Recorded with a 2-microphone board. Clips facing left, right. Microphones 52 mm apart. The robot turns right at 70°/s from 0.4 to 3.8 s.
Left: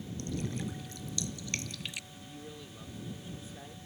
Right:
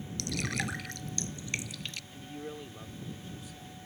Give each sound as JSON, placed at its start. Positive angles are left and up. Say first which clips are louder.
{"t": 0.2, "sound": "dripping", "louder": "right 3 dB", "side_deg": -85}
{"t": 2.1, "sound": "a man speaking", "louder": "right 5 dB", "azimuth_deg": -65}